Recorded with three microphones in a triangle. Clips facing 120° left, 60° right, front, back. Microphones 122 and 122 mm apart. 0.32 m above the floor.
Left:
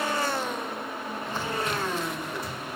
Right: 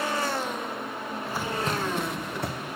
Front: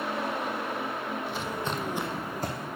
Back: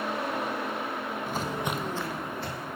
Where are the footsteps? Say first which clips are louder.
Right 1 dB, back 1 dB; 145° right, 0.9 m; by 2.7 s 40° right, 1.4 m.